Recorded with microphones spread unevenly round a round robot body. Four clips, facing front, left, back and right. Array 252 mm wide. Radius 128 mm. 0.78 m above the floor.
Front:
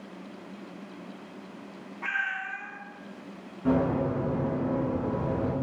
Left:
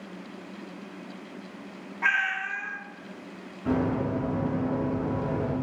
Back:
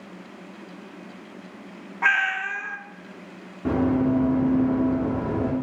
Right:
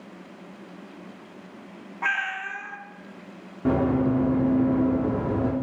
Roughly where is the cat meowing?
Behind.